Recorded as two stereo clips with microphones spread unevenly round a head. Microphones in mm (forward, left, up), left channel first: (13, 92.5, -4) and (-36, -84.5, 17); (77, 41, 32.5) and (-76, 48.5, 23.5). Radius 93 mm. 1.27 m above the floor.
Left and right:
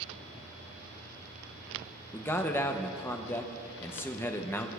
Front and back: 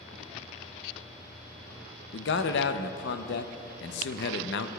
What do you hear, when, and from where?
2.1 s a man speaking: 5° right, 0.5 m